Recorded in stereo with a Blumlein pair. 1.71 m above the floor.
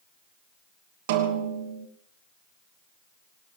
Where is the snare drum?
50° right, 2.5 m.